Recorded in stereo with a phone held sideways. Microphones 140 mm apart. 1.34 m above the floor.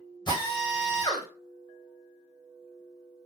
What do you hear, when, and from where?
0.3 s a drill: 35° left (ahead or behind), 3 m